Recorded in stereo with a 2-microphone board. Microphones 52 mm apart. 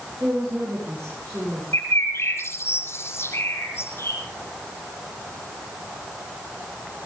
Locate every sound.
0.2 s a woman speaking: 70° right (ahead or behind), 8 m; by 1.6 s 75° right (ahead or behind), 8.5 m
1.7 s a bird: 55° left (ahead or behind), 7.5 m